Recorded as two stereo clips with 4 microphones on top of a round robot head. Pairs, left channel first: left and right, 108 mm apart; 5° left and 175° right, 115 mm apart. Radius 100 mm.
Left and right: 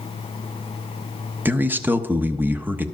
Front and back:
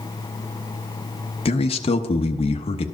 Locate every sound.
1.4 s a man speaking: 20° right, 0.9 m